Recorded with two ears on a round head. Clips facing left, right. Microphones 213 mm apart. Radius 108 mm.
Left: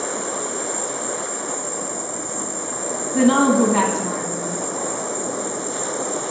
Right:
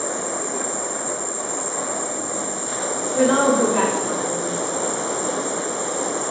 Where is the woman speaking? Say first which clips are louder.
Left 2 dB; 55° left (ahead or behind), 1.5 m.